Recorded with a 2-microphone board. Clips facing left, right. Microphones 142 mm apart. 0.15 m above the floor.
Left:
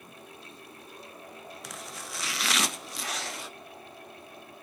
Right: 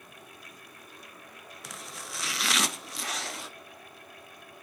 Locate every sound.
1.6 s chopping: centre (ahead or behind), 0.5 m